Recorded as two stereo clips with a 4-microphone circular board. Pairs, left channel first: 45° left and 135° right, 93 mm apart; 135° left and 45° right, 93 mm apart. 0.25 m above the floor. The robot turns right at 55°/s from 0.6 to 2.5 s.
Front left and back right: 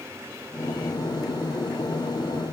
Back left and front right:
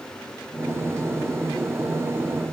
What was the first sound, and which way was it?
Only background noise.